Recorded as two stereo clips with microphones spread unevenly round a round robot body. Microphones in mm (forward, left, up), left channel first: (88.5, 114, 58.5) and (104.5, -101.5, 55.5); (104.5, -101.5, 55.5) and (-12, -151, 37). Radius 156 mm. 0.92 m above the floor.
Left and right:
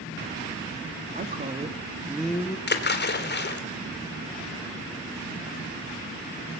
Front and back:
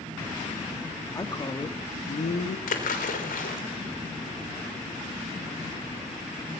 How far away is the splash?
About 3 m.